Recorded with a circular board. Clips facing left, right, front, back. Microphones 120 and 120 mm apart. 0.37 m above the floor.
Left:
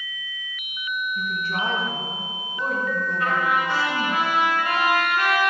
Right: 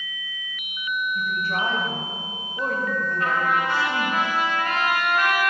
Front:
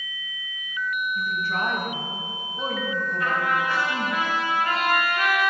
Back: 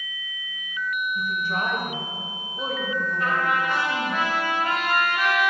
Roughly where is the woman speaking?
Behind right.